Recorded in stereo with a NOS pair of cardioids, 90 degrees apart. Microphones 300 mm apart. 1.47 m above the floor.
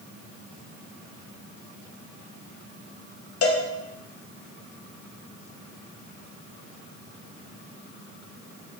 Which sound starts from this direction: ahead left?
A cowbell, at 3.4 s.